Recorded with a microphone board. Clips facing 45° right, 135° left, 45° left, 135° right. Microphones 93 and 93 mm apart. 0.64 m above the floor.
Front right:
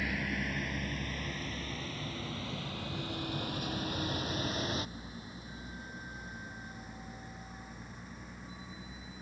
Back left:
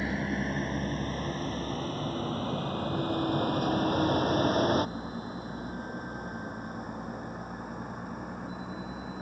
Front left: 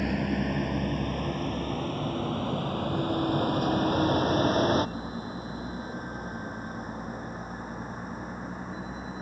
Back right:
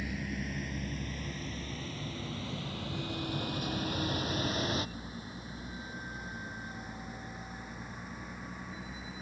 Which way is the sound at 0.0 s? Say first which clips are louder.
Back left 5 dB, front left 10 dB; 70° left.